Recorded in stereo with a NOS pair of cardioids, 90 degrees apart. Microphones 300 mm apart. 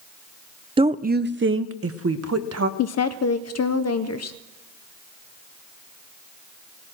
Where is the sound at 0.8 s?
20° right, 0.5 m; by 2.7 s 55° right, 1.3 m.